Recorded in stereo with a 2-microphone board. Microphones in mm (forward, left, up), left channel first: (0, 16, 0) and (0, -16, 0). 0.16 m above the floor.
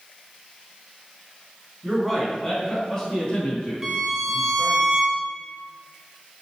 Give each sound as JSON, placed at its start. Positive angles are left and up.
{"t": 1.8, "sound": "a man speaking", "side_deg": -10, "distance_m": 1.2}
{"t": 3.8, "sound": "a violin", "side_deg": -15, "distance_m": 0.6}